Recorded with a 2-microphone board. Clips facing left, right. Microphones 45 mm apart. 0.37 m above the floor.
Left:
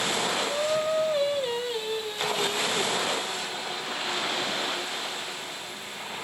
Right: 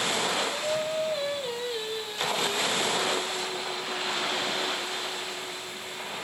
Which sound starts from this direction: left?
Singing, at 0.5 s.